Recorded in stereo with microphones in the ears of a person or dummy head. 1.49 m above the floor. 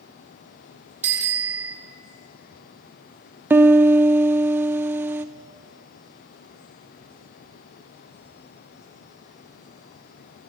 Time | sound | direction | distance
1.0 | a bicycle bell | 10° right (ahead or behind) | 3 m
3.5 | a piano | 10° right (ahead or behind) | 0.6 m